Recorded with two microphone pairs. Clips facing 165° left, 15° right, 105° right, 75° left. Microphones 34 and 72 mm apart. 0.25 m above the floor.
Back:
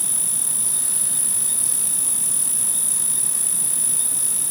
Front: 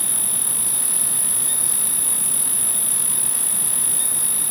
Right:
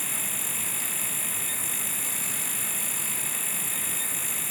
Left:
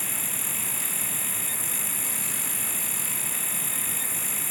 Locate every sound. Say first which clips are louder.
0.0 s an insect: front 2 dB, even; 60° left